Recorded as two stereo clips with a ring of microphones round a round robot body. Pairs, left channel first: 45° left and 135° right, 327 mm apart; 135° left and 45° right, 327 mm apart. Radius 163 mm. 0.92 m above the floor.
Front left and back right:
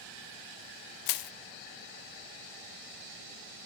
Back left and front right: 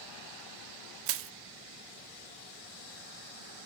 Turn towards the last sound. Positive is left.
turn(degrees=10)